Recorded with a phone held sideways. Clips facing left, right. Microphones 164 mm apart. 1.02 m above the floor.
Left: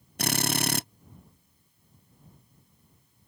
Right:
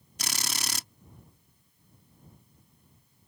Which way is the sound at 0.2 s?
55° left (ahead or behind).